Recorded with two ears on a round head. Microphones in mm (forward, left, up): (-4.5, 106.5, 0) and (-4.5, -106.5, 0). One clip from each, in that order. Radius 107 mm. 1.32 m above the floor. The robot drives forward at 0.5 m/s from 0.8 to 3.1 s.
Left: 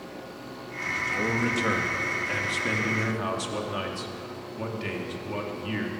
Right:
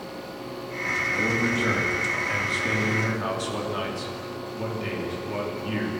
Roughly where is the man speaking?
Left.